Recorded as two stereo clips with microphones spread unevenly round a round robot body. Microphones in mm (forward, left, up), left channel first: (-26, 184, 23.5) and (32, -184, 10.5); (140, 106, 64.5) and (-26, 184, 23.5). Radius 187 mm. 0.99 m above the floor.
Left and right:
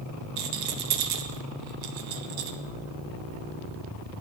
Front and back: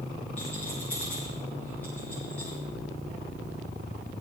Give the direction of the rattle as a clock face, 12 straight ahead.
4 o'clock.